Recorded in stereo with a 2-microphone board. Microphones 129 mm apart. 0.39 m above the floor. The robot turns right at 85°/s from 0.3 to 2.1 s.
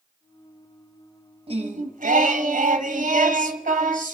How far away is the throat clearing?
No throat clearing in this recording.